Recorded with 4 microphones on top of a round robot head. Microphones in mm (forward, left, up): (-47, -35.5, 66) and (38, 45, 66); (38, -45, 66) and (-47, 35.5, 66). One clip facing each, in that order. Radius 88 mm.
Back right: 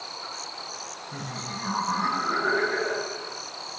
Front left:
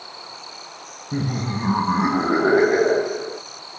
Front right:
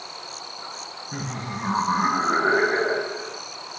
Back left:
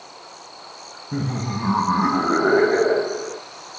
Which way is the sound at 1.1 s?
80° left.